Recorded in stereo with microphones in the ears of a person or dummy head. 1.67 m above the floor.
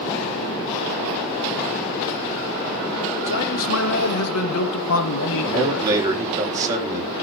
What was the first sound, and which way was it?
A man speaking, 70° left (ahead or behind).